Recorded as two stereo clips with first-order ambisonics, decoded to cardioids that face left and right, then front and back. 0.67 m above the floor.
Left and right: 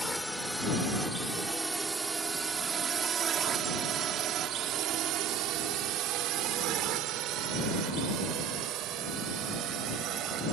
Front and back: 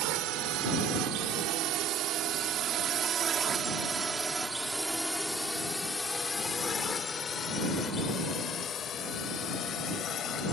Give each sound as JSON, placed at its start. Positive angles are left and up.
{"t": 0.0, "sound": "a drone", "azimuth_deg": 180}